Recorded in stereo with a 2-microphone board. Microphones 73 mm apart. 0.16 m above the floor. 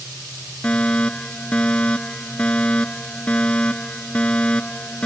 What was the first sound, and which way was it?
A fire alarm, 15° left (ahead or behind).